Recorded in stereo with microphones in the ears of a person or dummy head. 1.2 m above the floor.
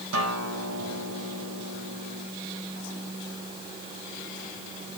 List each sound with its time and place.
0.1 s a guitar: 75° right (ahead or behind), 5 m